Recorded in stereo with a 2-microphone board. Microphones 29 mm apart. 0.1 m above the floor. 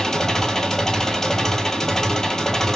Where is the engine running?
20° left (ahead or behind), 1.2 m.